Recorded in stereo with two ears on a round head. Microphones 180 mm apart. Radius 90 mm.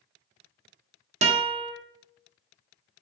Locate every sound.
1.2 s a guitar: 35° right (ahead or behind), 0.7 m